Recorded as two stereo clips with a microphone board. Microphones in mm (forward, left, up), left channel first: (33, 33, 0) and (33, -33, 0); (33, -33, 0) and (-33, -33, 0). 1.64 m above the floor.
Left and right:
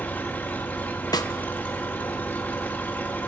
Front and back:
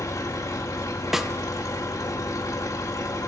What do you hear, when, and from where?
0.0 s an engine running: 25° left, 2 m
1.1 s a snare drum: 95° left, 1.1 m